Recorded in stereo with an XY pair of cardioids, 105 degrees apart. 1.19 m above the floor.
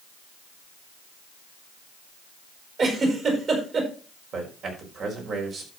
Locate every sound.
2.8 s a giggle: 50° right, 5.5 m
4.3 s a man speaking: 65° right, 5 m